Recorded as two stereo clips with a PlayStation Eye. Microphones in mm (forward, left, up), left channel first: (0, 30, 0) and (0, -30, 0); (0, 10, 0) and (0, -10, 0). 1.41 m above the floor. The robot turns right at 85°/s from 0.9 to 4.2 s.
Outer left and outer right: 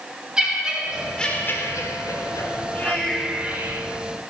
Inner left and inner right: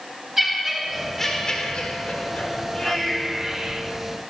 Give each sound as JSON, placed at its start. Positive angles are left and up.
{"t": 0.4, "sound": "laughter", "azimuth_deg": -10, "distance_m": 4.0}